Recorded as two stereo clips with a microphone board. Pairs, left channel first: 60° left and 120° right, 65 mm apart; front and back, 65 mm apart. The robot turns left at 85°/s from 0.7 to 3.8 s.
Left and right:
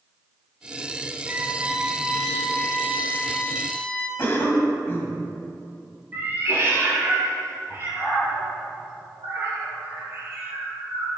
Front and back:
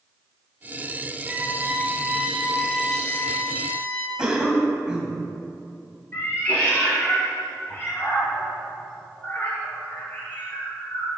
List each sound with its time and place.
1.3 s a violin: 140° right, 0.6 m; by 4.1 s 5° left, 0.6 m
4.2 s a cough: 115° left, 1.5 m
6.1 s a cat meowing: 60° right, 1.8 m